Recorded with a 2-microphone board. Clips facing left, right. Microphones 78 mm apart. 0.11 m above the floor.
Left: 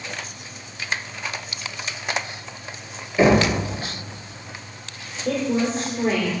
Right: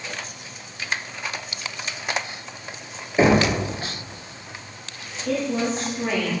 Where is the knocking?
20° right (ahead or behind), 1.7 m.